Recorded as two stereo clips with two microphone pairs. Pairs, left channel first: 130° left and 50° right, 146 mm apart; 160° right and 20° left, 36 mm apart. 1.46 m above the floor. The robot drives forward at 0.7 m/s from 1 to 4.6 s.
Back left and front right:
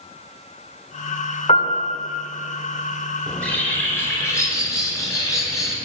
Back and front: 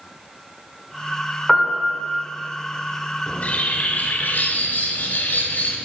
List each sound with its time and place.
1.5 s a piano: 100° left, 1.7 m; by 2.2 s 115° left, 1.8 m
3.3 s a bird: 145° right, 1.3 m; by 5.8 s 165° right, 2.0 m